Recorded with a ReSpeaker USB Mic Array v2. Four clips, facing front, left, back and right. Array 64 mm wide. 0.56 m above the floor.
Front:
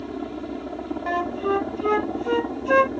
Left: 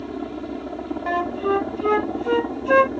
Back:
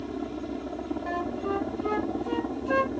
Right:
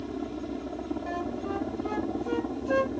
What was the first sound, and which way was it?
A helicopter, 60° left.